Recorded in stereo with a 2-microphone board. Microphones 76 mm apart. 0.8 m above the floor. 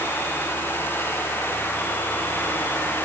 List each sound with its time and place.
Only background noise.